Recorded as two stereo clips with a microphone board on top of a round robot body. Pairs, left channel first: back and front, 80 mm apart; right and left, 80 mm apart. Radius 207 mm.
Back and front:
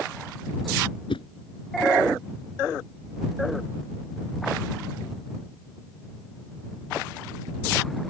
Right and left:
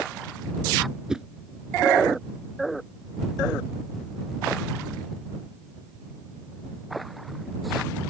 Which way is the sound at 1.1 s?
170° left.